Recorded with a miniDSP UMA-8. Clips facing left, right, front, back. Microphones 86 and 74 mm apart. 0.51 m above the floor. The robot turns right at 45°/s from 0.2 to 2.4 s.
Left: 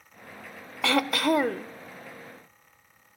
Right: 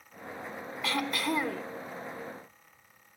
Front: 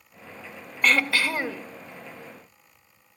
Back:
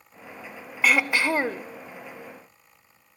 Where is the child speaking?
No child speaking in this recording.